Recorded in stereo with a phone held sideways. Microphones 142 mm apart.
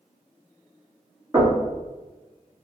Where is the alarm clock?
No alarm clock in this recording.